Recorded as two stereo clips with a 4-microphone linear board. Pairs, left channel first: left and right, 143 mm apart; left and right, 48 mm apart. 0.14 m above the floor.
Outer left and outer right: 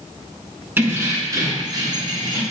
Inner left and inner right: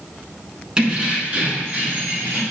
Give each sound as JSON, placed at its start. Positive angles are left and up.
{"t": 0.8, "sound": "keys jangling", "side_deg": -15, "distance_m": 0.8}